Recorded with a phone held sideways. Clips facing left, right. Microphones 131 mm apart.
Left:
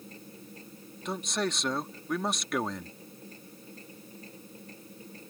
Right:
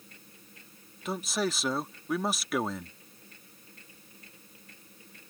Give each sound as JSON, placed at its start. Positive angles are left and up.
{"t": 0.0, "sound": "a machine running", "side_deg": 35}
{"t": 1.1, "sound": "a man speaking", "side_deg": -5}